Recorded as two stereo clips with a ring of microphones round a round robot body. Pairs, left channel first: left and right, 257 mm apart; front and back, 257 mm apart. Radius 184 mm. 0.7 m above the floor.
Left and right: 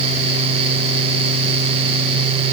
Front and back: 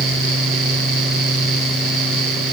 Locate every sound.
Only background noise.